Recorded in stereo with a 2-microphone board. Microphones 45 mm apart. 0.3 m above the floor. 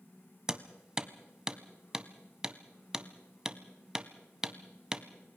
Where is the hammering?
15° right (ahead or behind), 1.0 m.